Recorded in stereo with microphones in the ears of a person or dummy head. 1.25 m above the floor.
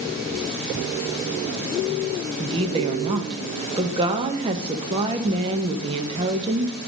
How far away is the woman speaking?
About 1.0 m.